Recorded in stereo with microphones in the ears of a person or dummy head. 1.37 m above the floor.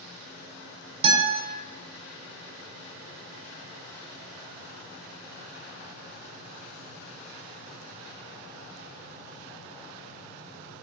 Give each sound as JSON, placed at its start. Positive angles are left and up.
{"t": 1.0, "sound": "a guitar", "side_deg": -30, "distance_m": 1.0}